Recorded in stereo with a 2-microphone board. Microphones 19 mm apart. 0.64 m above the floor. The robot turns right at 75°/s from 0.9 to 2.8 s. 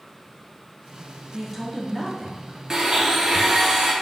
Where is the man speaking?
25° right, 1.0 m; by 2.6 s 70° left, 1.0 m.